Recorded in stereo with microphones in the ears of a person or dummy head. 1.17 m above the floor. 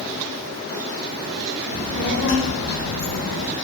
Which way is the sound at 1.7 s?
45° left (ahead or behind).